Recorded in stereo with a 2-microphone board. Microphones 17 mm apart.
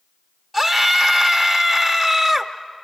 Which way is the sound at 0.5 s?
5° left (ahead or behind).